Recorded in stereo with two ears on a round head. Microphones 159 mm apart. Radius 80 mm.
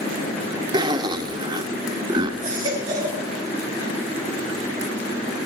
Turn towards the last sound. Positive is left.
turn(degrees=-25)  # may be behind; listen again after turning